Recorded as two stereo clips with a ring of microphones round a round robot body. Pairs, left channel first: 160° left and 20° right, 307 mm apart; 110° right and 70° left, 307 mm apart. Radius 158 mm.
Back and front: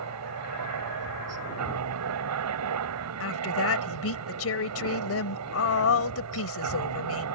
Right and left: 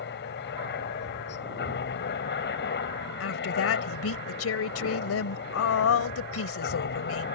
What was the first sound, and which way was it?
A helicopter, 55° right.